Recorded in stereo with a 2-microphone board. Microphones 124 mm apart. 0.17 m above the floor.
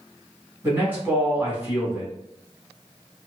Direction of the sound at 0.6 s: 15° right (ahead or behind).